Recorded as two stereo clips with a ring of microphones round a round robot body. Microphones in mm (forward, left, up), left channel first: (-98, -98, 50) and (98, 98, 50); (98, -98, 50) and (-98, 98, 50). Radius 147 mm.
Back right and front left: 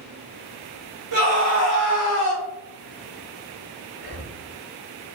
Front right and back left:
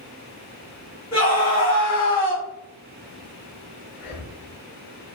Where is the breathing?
Straight ahead, 1.6 m.